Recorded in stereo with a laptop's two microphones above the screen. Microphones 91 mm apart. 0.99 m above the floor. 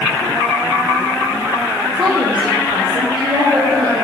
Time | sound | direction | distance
1.9 | a woman speaking | 75° right (ahead or behind) | 3 m